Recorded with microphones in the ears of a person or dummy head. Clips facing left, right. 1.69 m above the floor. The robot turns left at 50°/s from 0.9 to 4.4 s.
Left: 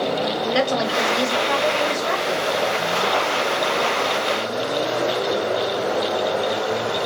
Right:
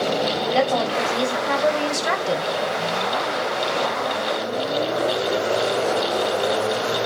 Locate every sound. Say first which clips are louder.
0.5 s a woman speaking: right 1 dB; 20° left, 1.3 m; by 2.4 s 55° right, 1.3 m